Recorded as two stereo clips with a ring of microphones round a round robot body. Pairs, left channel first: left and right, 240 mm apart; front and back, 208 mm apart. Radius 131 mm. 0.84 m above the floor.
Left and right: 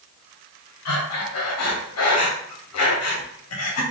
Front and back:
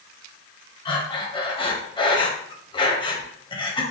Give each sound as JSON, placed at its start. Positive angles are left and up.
{"t": 0.8, "sound": "breathing", "azimuth_deg": 70, "distance_m": 0.8}